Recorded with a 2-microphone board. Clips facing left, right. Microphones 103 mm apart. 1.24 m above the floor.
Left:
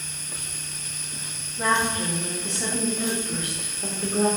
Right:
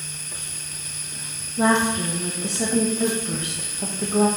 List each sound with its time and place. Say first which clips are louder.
1.6 s a woman speaking: right 4 dB; 70° right (ahead or behind), 1.8 m; by 4.3 s 55° right (ahead or behind), 1.7 m